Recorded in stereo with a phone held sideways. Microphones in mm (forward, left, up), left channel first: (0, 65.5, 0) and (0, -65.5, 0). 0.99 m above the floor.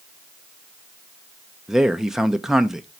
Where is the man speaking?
5° right (ahead or behind), 0.5 m.